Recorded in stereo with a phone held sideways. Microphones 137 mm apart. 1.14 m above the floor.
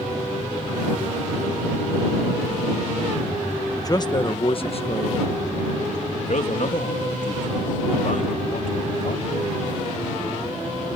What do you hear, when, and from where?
3.8 s a man speaking: 25° left (ahead or behind); by 9.4 s 80° left